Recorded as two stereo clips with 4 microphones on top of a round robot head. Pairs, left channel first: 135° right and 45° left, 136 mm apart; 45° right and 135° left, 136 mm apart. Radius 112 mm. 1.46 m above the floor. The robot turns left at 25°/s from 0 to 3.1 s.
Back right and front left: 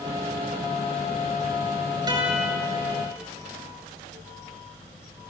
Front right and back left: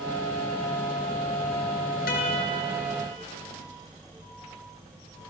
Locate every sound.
2.1 s a guitar: 20° right, 3 m; by 2.6 s 30° right, 3 m